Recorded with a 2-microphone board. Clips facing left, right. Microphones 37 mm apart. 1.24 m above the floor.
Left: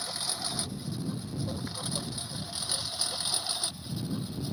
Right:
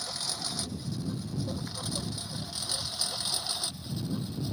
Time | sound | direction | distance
0.0 | a lawn mower | 15° left (ahead or behind) | ?